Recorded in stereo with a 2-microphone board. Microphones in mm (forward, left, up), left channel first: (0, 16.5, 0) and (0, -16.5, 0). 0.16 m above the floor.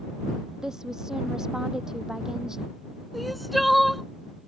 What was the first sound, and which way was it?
A woman speaking, 15° right (ahead or behind).